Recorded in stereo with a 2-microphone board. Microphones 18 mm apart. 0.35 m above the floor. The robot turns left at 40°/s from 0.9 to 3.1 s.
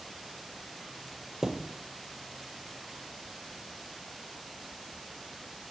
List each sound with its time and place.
1.4 s a thud: 35° right (ahead or behind), 0.6 m; by 1.8 s 25° right (ahead or behind), 0.6 m